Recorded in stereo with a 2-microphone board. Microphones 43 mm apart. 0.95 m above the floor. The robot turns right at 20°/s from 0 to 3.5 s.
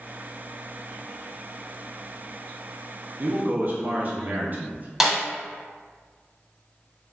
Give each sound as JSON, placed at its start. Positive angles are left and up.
{"t": 3.2, "sound": "a man speaking", "side_deg": -35, "distance_m": 0.6}
{"t": 5.0, "sound": "a snare drum", "side_deg": -10, "distance_m": 0.6}